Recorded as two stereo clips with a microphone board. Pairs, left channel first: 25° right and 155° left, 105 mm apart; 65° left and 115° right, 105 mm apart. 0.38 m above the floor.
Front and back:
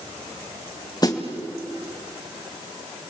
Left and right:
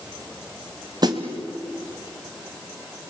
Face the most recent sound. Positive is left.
turn(degrees=-70)